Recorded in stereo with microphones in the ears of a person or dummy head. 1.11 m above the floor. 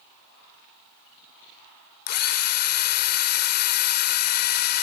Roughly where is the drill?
Left.